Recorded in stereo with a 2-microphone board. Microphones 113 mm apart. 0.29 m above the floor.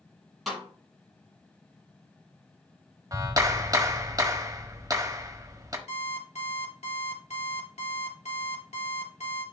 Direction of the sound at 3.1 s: 35° right (ahead or behind).